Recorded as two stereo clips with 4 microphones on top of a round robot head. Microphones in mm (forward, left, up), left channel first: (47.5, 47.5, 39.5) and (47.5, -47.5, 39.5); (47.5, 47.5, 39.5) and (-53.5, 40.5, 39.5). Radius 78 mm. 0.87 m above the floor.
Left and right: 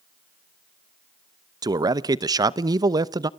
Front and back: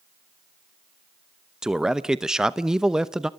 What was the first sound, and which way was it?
A man speaking, 95° right.